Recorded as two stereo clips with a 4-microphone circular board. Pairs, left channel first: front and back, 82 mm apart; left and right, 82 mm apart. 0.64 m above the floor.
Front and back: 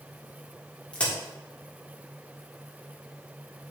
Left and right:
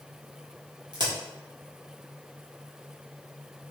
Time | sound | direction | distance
0.9 | a crack | 75° right | 1.4 m